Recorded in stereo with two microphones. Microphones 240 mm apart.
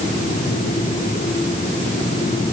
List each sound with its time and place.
Only background noise.